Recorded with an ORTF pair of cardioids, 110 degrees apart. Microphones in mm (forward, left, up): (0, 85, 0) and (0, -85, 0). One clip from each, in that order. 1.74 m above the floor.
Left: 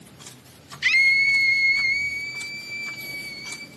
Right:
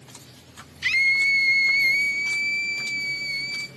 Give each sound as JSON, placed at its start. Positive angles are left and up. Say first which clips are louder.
{"t": 0.8, "sound": "a scream", "louder": "left 2 dB", "azimuth_deg": 15, "distance_m": 1.1}